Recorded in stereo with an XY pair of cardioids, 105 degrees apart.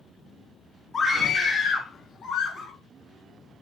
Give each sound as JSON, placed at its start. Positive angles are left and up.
{"t": 0.9, "sound": "a scream", "azimuth_deg": 45, "distance_m": 3.0}